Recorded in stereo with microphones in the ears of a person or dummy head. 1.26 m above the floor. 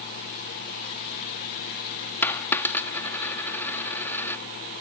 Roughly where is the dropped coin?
Centre.